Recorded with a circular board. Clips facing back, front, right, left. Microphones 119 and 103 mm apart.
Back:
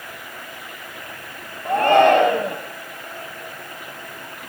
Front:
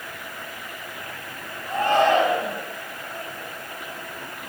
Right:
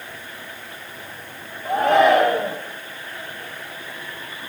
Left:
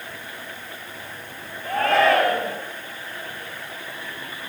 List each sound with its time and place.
1.6 s a shout: 160° right, 4 m